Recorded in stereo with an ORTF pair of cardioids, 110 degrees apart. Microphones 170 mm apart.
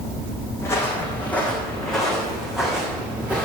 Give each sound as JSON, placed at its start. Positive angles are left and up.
{"t": 0.6, "sound": "footsteps", "azimuth_deg": 15, "distance_m": 3.5}